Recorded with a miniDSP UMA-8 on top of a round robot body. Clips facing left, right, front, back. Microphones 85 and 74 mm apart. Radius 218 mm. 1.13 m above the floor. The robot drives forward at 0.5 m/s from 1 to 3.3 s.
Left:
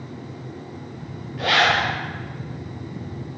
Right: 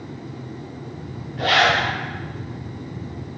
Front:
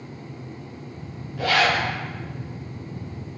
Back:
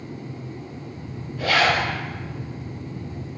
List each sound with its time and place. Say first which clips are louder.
1.4 s a zipper: right 1 dB, back 1 dB; 5° right, 1.0 m